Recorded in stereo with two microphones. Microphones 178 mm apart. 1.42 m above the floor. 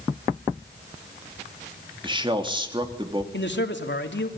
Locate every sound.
2.0 s a man speaking: 25° right (ahead or behind), 3 m
3.3 s a man speaking: 75° left (ahead or behind), 3 m